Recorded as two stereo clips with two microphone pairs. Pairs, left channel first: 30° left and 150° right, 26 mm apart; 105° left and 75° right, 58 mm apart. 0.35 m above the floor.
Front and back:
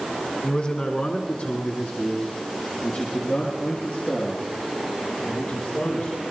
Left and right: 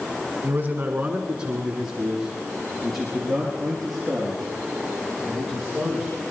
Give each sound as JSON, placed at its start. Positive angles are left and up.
{"t": 0.4, "sound": "a man speaking", "azimuth_deg": -20, "distance_m": 2.5}